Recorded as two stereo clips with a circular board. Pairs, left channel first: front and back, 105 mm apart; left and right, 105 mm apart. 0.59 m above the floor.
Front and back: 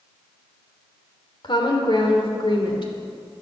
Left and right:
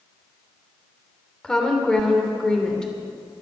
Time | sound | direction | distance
1.4 | a woman speaking | 10° left | 2.5 m